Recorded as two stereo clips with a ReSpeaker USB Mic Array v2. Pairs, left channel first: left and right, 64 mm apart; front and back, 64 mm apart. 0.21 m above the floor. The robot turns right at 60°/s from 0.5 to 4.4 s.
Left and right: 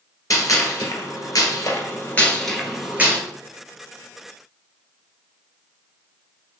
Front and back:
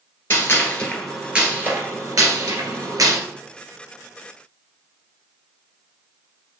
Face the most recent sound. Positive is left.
turn(degrees=-70)